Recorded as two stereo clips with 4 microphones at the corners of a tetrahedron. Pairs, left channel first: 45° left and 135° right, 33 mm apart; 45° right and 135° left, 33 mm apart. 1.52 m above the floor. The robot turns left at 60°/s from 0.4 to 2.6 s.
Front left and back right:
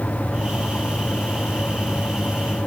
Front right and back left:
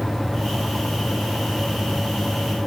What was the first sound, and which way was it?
Only background noise.